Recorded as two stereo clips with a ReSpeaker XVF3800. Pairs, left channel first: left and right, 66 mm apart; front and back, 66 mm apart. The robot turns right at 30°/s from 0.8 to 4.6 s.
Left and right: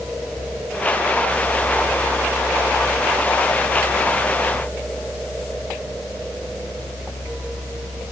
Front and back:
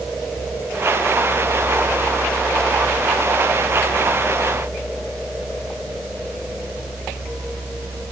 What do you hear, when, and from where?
Only background noise.